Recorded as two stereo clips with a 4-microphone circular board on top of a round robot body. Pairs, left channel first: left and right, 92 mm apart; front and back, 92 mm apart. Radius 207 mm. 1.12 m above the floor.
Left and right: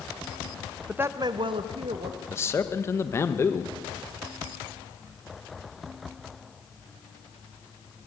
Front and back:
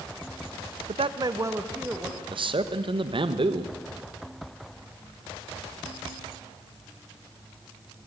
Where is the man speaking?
155° left, 1.4 m.